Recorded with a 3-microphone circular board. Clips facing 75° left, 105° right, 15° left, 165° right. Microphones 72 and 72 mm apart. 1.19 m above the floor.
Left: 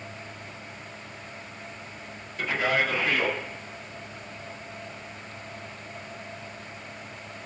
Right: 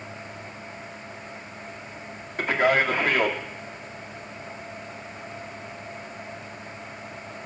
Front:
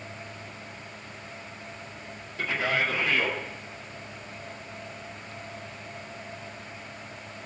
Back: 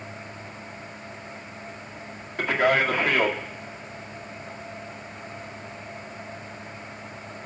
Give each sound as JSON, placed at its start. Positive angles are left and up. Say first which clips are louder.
{"t": 2.4, "sound": "a man speaking", "louder": "right 4 dB, back 6 dB", "azimuth_deg": -140, "distance_m": 2.5}